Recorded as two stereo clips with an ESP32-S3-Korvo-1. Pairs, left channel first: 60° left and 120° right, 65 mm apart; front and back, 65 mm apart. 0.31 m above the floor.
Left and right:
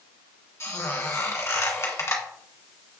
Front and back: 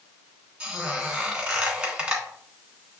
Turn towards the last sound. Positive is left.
turn(degrees=105)